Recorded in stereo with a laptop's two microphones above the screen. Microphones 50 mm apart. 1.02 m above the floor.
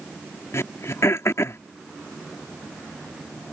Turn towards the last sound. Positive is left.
turn(degrees=65)  # may be behind; listen again after turning